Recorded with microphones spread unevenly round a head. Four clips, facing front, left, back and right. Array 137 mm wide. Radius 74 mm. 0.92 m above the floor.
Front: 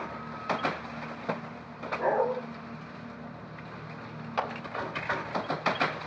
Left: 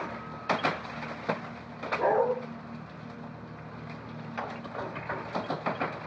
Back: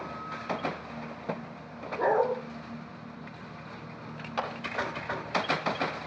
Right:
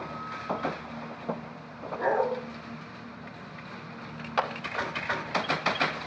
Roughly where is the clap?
Ahead right.